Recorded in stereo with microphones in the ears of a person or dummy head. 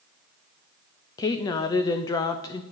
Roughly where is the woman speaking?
Left.